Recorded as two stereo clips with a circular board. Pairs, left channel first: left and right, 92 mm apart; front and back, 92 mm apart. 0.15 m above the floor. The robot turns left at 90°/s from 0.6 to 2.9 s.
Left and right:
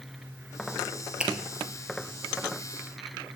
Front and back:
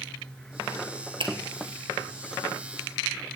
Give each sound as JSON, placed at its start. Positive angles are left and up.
{"t": 1.2, "sound": "a finger snap", "azimuth_deg": -170, "distance_m": 2.5}